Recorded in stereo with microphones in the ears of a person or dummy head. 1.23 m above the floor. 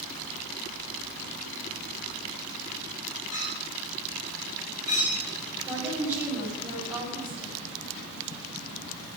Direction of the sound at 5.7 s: 15° right (ahead or behind).